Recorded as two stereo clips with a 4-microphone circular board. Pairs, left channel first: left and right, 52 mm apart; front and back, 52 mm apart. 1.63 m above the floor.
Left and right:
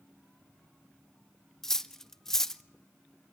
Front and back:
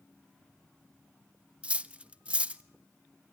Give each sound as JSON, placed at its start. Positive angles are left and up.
{"t": 1.6, "sound": "cutlery clinking", "azimuth_deg": 155, "distance_m": 0.8}